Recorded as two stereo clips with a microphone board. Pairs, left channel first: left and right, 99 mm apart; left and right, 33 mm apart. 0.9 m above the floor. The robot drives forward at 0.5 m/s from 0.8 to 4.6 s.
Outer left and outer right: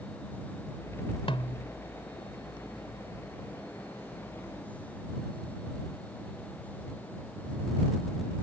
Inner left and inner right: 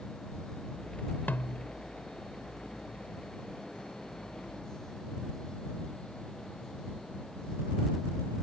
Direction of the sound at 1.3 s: 60° left (ahead or behind).